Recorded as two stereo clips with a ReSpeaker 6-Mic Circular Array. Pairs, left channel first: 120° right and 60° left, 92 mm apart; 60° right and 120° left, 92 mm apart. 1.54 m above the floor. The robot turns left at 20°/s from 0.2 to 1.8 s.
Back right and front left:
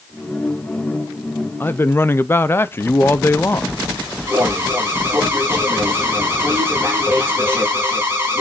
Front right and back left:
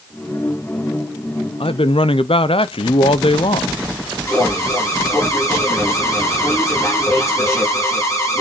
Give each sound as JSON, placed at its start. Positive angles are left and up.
{"t": 1.6, "sound": "a man speaking", "azimuth_deg": -50, "distance_m": 0.8}
{"t": 4.3, "sound": "an alarm", "azimuth_deg": -5, "distance_m": 4.5}